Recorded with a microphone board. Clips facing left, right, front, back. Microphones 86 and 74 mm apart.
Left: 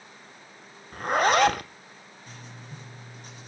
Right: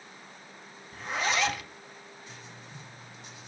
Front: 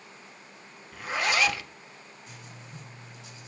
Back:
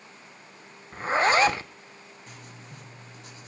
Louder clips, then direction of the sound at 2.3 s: Left 2 dB, back 1 dB; 135° left.